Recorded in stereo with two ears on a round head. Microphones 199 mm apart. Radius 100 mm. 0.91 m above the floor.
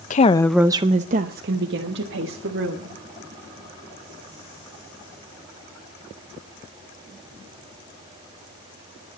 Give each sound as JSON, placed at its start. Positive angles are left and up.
{"t": 0.1, "sound": "a woman speaking", "side_deg": 35, "distance_m": 0.6}